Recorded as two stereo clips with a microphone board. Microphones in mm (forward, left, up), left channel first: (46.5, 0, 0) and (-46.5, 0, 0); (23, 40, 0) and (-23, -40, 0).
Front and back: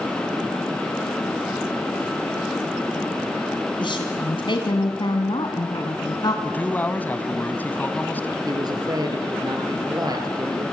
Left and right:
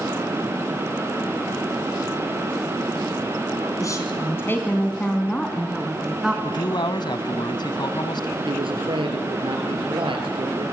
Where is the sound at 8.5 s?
135° right, 5 m.